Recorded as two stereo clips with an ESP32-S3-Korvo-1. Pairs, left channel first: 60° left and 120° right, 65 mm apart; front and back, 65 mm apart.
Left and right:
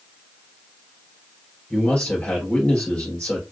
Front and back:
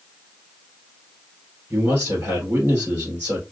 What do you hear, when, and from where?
1.7 s a man speaking: 130° left, 3 m